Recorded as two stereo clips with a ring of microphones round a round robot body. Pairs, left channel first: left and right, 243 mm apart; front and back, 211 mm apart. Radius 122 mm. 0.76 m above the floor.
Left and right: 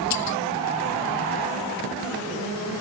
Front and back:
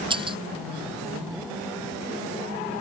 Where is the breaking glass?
115° left.